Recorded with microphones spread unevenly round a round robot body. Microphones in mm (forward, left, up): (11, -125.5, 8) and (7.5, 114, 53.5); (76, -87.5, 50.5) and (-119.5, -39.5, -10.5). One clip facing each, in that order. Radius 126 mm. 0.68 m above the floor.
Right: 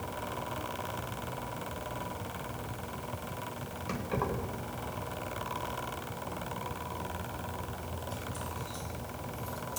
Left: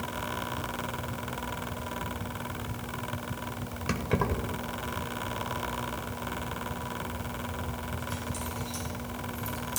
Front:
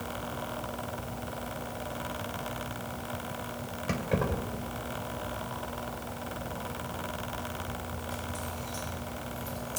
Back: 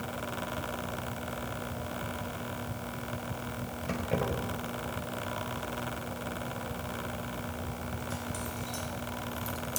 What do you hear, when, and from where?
3.9 s keys jangling: 70° left, 1.9 m; by 9.8 s 150° left, 3 m